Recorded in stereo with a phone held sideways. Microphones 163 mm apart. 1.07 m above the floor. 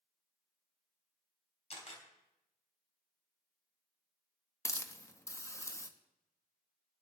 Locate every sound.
1.7 s a camera shutter: 40° left (ahead or behind), 3 m
4.7 s a hiss: 20° left (ahead or behind), 0.8 m